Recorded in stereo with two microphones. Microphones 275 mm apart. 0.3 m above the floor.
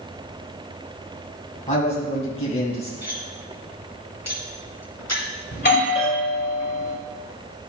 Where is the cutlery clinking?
75° left (ahead or behind), 2.5 m.